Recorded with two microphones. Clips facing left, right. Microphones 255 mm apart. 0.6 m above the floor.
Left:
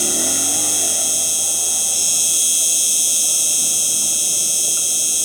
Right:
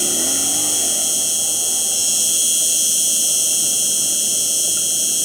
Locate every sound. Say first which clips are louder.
0.0 s an insect: left 1 dB; 5° right (ahead or behind)